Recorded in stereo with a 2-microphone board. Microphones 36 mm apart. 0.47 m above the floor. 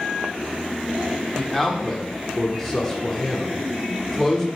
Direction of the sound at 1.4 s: 10° left (ahead or behind).